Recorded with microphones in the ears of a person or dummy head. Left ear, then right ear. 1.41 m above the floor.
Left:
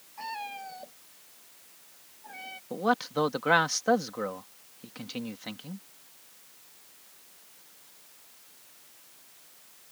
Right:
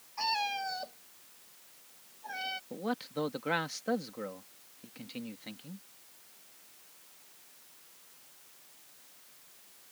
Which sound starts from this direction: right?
A cat meowing, at 0.2 s.